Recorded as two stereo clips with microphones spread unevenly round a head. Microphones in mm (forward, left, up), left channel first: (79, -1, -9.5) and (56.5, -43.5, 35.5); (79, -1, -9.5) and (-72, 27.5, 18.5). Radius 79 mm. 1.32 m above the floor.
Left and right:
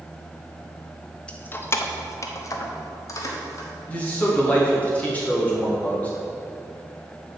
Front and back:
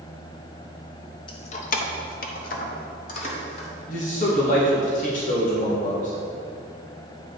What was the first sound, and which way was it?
Keys jangling, 70° right.